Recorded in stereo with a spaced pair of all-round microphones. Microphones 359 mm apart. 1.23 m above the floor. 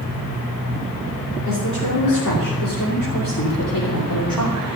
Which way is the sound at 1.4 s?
55° left (ahead or behind).